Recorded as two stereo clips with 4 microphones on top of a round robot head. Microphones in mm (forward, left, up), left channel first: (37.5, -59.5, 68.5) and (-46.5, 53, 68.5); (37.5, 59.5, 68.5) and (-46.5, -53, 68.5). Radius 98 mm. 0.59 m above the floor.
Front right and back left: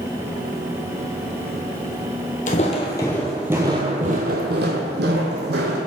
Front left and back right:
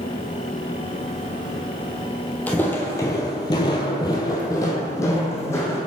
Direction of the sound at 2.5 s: 25° right.